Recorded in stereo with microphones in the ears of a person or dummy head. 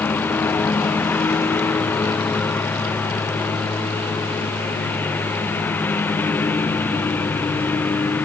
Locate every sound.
0.0 s a lawn mower: 10° left (ahead or behind)